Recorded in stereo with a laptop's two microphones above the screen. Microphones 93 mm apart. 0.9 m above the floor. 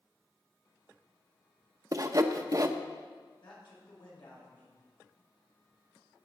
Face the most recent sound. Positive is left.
turn(degrees=70)  # may be behind; listen again after turning